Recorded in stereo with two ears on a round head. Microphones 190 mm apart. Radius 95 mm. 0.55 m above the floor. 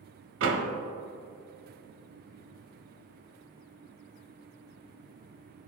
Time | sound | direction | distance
0.4 | a door slam | 65° right (ahead or behind) | 1.0 m